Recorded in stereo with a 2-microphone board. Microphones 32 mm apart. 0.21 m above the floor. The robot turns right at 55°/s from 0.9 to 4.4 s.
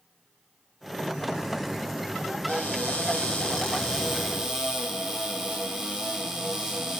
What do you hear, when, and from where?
2.5 s a cupboard door: 90° left, 2.5 m; by 7.0 s 165° right, 2.5 m